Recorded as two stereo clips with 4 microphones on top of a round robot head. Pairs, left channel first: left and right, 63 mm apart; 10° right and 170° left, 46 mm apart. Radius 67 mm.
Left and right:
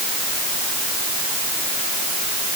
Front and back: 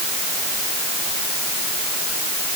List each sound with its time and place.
Only background noise.